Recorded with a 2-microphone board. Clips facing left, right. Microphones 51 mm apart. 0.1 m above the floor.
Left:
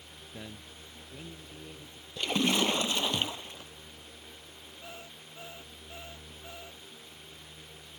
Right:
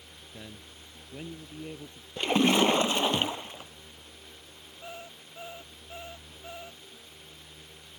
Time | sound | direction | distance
0.3 | a man speaking | 10° left (ahead or behind) | ?
2.2 | a splash | 30° right (ahead or behind) | ?
4.8 | an alarm clock | 20° right (ahead or behind) | ?